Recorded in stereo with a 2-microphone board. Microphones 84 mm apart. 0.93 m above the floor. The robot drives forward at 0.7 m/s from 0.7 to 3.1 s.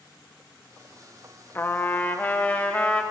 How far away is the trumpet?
About 1.3 m.